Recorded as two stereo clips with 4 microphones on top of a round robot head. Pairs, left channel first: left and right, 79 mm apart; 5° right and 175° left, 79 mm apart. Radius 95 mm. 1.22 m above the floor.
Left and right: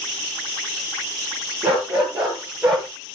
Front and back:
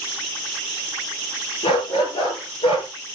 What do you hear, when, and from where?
1.6 s a dog barking: 15° right, 6.5 m; by 2.9 s 5° right, 7 m